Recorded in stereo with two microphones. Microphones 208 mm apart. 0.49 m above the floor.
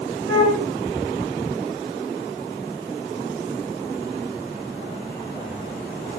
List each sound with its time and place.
0.3 s a flute: 75° right (ahead or behind), 7.5 m